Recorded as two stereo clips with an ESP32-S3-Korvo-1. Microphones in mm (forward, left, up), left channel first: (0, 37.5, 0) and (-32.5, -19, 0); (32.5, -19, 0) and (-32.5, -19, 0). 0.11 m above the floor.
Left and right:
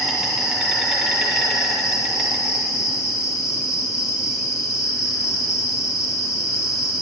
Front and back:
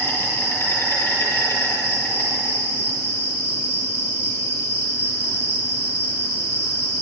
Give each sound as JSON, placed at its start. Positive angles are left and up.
{"t": 0.0, "sound": "an insect", "azimuth_deg": -35, "distance_m": 2.5}